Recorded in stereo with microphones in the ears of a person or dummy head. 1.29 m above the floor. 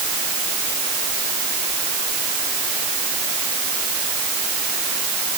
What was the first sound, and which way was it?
Only background noise.